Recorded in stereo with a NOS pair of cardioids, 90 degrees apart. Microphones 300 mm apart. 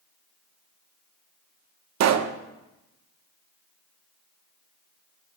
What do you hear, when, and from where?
2.0 s a pop: 65° right, 0.8 m